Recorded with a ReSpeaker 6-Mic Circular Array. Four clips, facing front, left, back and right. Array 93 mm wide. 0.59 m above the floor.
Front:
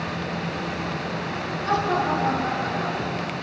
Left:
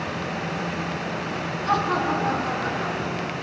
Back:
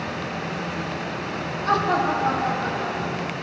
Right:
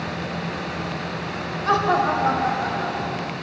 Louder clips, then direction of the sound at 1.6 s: Right 4 dB, back 2 dB; 105° right.